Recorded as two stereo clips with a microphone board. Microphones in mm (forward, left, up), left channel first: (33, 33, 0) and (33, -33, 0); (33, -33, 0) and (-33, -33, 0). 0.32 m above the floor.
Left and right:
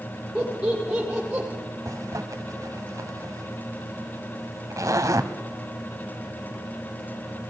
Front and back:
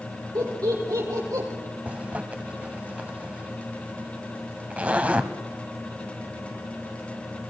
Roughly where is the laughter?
Behind.